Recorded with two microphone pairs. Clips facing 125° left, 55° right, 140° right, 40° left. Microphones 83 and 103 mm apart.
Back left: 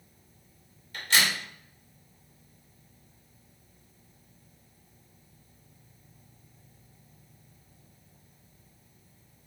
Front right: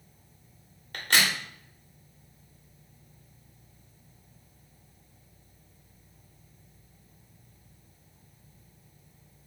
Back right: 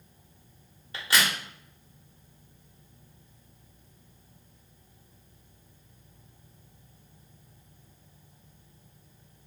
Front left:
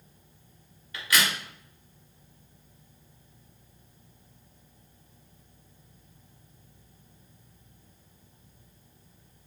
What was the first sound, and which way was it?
A crack, 80° right.